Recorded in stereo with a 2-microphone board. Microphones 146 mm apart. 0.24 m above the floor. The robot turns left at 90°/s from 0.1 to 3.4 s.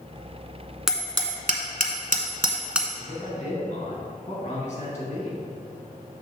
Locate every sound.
0.9 s hammering: centre (ahead or behind), 0.8 m
3.0 s a man speaking: 140° left, 2.5 m; by 5.4 s 100° left, 2.5 m